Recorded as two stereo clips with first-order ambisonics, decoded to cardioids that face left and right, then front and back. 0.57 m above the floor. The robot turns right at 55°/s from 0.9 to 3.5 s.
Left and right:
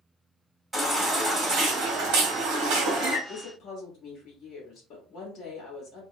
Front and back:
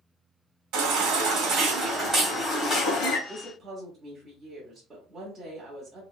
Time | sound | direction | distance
0.7 | a baby crying | 170° right | 1.5 m
3.3 | a woman speaking | 105° left | 1.3 m